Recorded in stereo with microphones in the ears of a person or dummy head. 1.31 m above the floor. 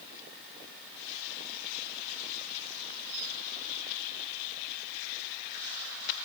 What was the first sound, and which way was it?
Only background noise.